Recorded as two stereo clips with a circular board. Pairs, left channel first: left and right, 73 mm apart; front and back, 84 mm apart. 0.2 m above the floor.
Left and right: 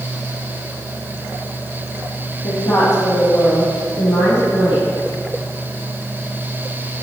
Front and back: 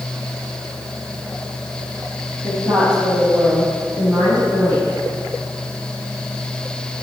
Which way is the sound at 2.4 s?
85° left.